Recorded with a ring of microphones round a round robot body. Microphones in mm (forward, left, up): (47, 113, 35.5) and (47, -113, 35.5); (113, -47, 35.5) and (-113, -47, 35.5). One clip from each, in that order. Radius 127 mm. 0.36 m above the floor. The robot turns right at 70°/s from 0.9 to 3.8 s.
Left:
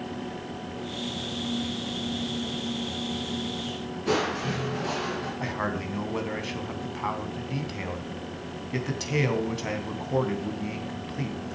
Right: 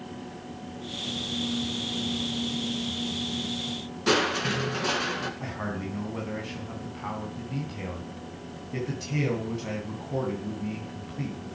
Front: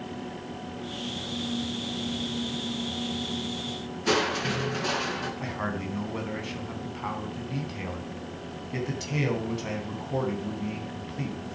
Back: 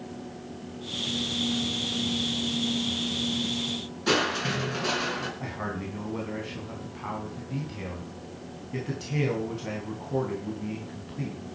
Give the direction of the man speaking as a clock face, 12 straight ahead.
10 o'clock.